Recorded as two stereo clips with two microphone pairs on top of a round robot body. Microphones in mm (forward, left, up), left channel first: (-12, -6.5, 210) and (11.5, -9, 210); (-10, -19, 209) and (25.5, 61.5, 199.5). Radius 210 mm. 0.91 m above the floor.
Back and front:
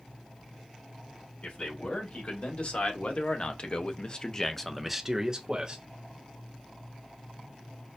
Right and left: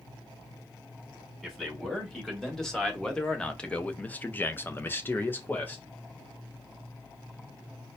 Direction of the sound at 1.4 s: 155° left.